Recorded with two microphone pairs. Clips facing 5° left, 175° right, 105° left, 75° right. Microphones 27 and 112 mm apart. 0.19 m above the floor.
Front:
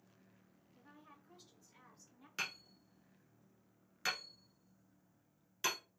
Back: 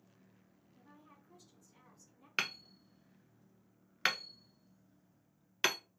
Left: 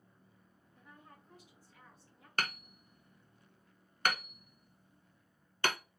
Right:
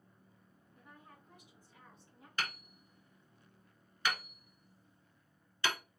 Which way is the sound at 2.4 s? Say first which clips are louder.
Back 6 dB, left 3 dB; 140° left.